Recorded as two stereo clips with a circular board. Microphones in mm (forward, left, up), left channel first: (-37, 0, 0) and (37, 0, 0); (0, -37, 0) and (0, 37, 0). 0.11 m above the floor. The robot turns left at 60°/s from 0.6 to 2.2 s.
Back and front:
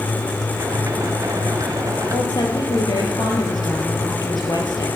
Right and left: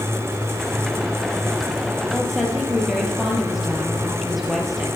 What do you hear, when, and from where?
2.1 s a woman speaking: 175° right, 3.5 m; by 4.9 s straight behind, 3.5 m